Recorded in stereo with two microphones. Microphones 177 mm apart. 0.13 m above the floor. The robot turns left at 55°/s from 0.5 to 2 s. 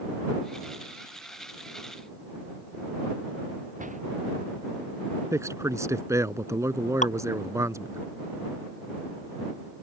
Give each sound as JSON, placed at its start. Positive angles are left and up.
{"t": 3.8, "sound": "a door slam", "side_deg": -45}
{"t": 5.3, "sound": "a man speaking", "side_deg": -15}
{"t": 7.0, "sound": "dripping", "side_deg": 40}